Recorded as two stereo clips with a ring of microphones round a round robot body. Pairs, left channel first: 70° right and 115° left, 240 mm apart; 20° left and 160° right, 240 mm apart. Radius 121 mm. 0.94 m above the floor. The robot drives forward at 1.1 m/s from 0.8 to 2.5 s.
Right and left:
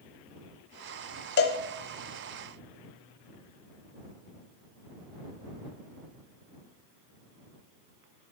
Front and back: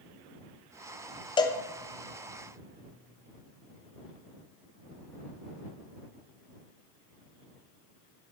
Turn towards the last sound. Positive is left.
turn(degrees=-160)